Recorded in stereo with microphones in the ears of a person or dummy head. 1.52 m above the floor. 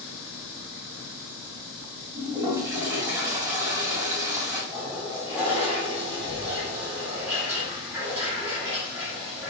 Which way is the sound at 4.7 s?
15° right (ahead or behind).